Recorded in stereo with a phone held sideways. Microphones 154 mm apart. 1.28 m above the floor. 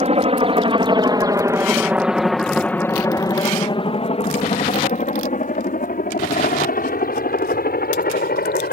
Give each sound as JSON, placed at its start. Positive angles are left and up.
{"t": 0.0, "sound": "a helicopter", "side_deg": -45}